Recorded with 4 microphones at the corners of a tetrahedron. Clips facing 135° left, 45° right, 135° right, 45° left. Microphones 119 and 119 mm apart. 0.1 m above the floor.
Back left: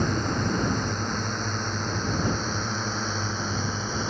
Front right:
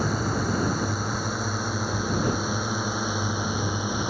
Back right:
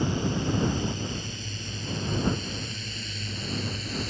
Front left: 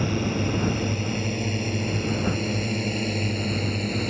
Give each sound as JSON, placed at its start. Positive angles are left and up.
{"t": 0.0, "sound": "a drone", "azimuth_deg": 35}